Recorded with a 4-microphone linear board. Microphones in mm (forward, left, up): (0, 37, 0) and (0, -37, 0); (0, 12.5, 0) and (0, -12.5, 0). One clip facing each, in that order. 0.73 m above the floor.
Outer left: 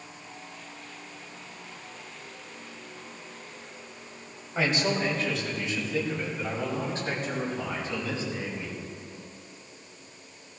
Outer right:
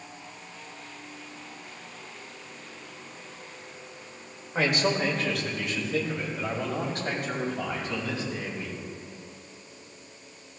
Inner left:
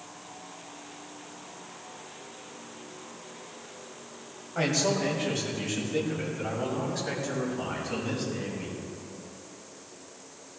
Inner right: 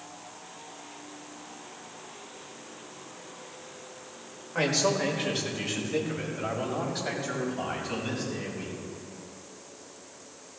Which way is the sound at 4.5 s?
60° right (ahead or behind).